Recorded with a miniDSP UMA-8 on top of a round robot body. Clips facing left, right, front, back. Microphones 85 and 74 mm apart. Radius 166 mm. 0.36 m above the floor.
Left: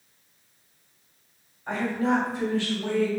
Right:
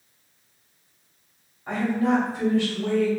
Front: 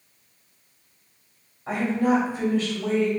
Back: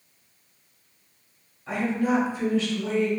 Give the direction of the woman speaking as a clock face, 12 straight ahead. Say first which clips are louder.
Right 2 dB, front 2 dB; 1 o'clock.